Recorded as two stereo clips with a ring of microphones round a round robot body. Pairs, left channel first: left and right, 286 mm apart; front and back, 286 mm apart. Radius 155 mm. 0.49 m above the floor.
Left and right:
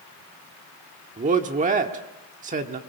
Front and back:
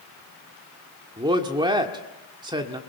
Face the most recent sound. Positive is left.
turn(degrees=-120)